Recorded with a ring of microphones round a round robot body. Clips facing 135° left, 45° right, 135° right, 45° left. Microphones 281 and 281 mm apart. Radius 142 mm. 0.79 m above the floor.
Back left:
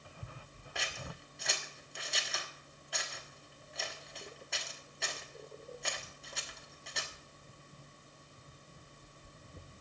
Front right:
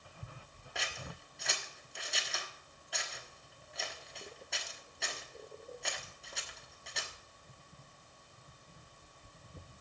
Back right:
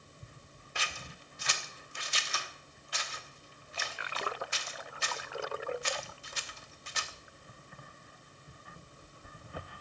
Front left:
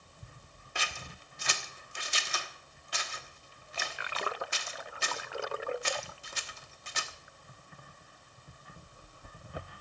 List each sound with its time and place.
0.8 s scissors: 45° left, 1.2 m